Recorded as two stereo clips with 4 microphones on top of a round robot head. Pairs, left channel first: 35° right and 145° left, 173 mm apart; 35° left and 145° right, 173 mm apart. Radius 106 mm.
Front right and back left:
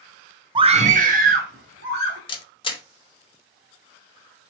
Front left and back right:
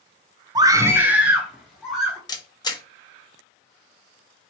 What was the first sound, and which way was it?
A scream, 175° left.